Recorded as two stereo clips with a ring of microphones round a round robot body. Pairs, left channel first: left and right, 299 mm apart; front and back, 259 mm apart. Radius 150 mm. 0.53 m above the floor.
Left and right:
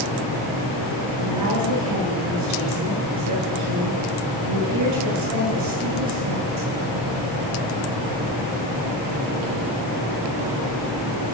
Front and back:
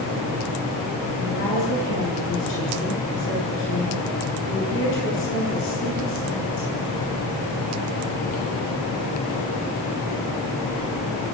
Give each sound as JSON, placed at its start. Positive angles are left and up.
{"t": 1.2, "sound": "a woman speaking", "azimuth_deg": -55, "distance_m": 9.0}